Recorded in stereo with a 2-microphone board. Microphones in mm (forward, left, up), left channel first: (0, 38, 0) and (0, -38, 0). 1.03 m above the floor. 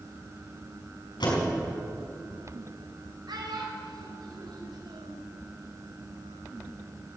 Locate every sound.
1.2 s a door slam: 85° left, 5.5 m
3.3 s a child speaking: 70° right (ahead or behind), 3.5 m